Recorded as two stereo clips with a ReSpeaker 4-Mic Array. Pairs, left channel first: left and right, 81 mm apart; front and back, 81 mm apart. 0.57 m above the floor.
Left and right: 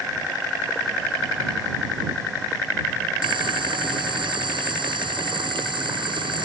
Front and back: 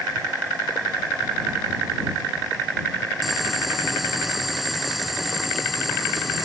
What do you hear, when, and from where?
3.2 s boiling: 90° right